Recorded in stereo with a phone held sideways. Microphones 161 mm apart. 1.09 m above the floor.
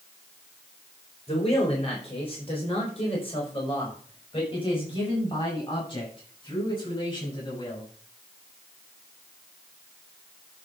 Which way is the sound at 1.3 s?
40° left (ahead or behind).